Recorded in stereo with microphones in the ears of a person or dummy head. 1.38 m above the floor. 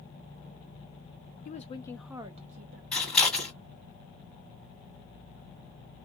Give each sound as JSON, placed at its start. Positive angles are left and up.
{"t": 1.4, "sound": "a woman speaking", "side_deg": 50, "distance_m": 0.7}
{"t": 2.9, "sound": "scissors", "side_deg": 10, "distance_m": 2.0}